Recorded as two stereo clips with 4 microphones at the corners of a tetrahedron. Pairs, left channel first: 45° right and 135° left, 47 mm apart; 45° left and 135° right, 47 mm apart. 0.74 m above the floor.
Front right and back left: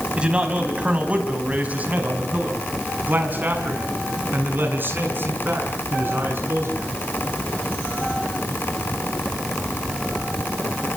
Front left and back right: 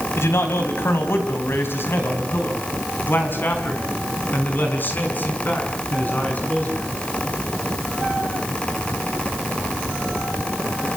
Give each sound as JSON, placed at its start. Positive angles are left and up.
{"t": 0.2, "sound": "a man speaking", "azimuth_deg": 70, "distance_m": 4.5}